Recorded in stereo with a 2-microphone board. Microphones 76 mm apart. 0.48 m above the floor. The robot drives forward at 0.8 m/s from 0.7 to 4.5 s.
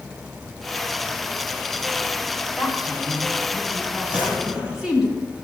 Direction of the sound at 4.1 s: 15° right (ahead or behind).